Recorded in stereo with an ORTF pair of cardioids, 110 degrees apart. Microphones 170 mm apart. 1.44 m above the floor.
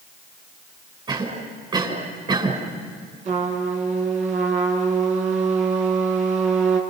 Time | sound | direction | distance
1.1 | a cough | 30° right | 6.5 m
3.2 | a trumpet | 50° right | 6 m